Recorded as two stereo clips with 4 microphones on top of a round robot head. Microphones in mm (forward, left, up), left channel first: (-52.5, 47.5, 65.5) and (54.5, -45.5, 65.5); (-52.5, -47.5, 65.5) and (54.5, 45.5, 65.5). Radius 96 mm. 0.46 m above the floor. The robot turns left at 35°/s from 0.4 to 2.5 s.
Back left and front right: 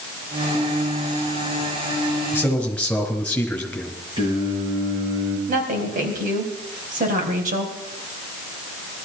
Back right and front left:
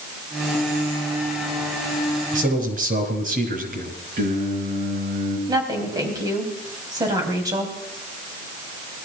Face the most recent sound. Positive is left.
turn(degrees=-20)